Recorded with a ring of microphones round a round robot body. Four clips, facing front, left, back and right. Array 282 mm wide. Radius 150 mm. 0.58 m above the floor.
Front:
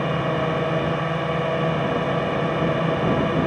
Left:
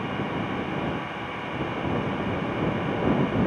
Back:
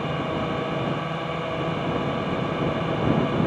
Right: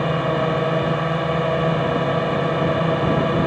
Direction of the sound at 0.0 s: 65° right.